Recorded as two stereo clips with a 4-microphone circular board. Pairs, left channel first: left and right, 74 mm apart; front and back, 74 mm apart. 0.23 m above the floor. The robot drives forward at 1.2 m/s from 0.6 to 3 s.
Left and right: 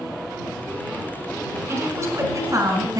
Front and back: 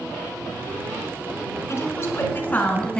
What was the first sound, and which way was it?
A woman speaking, 40° right.